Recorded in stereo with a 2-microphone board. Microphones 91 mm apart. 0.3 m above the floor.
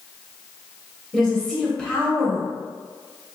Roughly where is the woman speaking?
Centre.